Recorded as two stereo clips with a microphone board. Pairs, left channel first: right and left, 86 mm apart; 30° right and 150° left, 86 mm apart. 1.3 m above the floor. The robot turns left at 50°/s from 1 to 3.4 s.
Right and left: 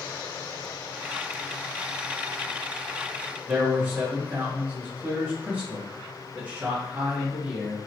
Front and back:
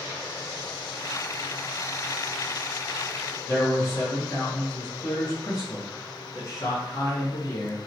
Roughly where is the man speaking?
Ahead.